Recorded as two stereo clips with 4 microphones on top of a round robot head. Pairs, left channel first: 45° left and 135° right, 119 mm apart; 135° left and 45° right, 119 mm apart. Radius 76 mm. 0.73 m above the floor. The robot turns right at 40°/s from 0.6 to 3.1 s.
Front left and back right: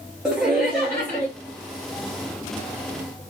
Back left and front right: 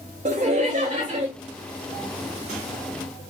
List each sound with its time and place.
0.2 s laughter: 50° right, 1.1 m; by 1.3 s 20° right, 1.1 m